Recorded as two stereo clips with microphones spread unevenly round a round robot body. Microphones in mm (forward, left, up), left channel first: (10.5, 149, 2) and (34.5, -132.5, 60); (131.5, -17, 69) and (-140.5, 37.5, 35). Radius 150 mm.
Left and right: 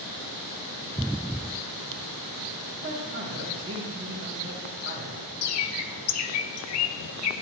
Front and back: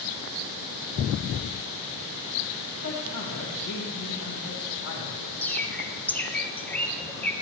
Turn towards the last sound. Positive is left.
turn(degrees=75)